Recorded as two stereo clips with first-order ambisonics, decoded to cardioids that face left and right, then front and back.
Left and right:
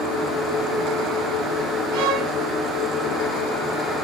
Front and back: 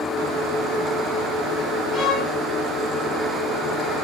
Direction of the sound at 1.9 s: 70° right.